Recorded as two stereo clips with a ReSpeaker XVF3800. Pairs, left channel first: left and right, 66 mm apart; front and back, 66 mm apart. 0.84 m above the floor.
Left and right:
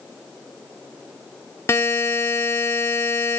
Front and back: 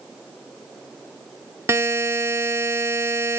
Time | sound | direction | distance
1.7 | a buzzer | 135° left | 0.9 m